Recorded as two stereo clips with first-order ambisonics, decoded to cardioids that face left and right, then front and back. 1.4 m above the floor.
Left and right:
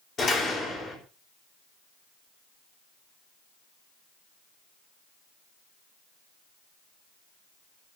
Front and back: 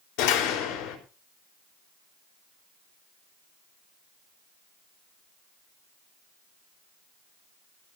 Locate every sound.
0.2 s a door slam: 25° left, 4.5 m